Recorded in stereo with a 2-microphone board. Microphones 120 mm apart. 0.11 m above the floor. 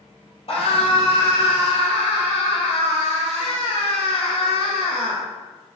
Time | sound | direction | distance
0.5 | a scream | 45° left (ahead or behind) | 3 m